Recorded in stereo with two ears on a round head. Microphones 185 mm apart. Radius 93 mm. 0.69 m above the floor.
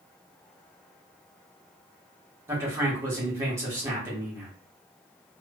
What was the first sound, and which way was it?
A man speaking, 15° right (ahead or behind).